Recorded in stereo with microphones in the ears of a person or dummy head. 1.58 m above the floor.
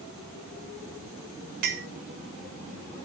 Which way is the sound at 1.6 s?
45° right (ahead or behind).